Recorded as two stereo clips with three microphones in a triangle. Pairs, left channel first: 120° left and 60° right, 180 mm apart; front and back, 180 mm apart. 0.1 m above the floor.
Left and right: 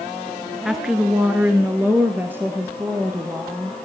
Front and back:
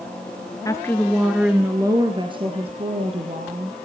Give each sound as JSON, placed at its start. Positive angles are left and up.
{"t": 0.7, "sound": "a woman speaking", "azimuth_deg": 25, "distance_m": 1.3}